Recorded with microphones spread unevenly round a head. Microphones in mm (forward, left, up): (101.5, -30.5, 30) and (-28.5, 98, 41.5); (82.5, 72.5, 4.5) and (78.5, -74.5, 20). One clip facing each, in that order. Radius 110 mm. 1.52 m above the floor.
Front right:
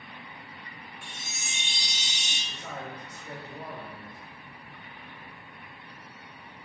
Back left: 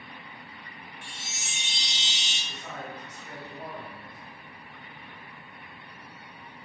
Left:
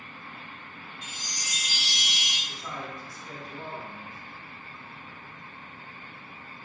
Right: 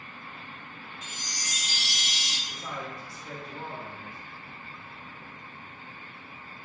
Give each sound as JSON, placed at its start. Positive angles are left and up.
{"t": 1.0, "sound": "a chime", "azimuth_deg": -55, "distance_m": 1.7}
{"t": 2.5, "sound": "a man speaking", "azimuth_deg": -65, "distance_m": 1.6}